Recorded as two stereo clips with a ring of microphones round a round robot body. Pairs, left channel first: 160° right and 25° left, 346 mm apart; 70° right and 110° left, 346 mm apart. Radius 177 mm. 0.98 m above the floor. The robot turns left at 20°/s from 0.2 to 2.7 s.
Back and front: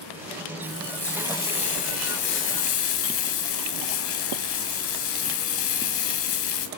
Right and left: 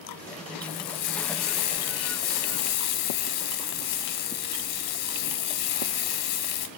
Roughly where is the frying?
Ahead right.